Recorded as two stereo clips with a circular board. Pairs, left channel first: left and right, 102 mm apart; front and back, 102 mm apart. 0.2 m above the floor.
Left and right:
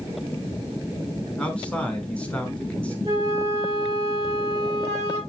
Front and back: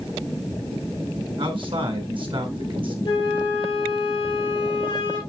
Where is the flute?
40° right, 4.5 m.